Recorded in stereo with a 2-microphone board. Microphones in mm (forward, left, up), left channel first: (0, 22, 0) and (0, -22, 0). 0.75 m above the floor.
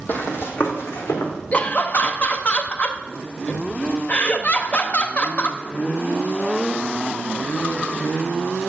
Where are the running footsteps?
50° left (ahead or behind), 1.9 m; by 1.3 s 70° left (ahead or behind), 3.5 m.